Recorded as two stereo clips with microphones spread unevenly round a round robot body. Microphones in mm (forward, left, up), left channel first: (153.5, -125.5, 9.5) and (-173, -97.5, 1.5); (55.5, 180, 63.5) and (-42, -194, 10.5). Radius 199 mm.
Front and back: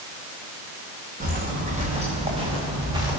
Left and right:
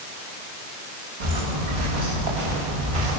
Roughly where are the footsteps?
Behind right.